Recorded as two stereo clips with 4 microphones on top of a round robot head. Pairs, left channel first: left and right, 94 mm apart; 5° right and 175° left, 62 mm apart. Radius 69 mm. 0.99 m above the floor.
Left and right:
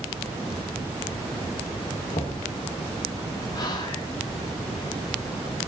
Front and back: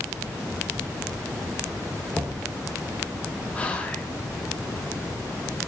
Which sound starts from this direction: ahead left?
Whispering, at 3.5 s.